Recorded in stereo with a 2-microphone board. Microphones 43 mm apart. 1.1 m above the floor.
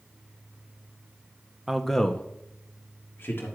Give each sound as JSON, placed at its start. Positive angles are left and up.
{"t": 1.7, "sound": "a man speaking", "side_deg": -10, "distance_m": 0.8}